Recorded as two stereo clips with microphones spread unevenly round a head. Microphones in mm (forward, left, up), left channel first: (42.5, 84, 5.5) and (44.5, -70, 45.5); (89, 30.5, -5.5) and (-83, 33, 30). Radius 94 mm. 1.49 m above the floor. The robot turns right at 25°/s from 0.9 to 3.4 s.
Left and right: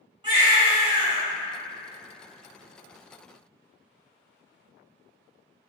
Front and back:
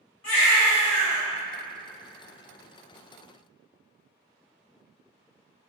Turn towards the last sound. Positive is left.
turn(degrees=30)